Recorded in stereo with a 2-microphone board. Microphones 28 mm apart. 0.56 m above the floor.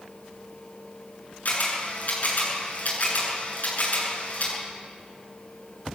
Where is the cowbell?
I don't hear a cowbell.